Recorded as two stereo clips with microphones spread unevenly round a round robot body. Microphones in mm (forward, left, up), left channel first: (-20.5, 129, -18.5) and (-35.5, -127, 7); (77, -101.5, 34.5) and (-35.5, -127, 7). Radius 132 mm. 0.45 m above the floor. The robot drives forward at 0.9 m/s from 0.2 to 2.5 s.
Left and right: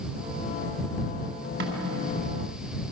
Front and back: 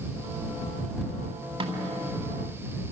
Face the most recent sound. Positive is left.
turn(degrees=-145)